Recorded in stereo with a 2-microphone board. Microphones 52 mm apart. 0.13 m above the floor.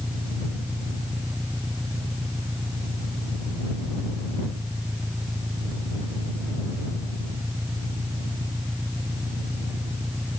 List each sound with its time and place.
0.0 s an engine running: 55° right (ahead or behind)